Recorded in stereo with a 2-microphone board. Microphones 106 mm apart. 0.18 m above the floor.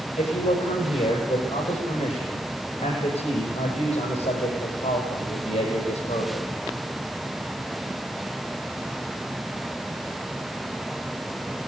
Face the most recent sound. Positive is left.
turn(degrees=80)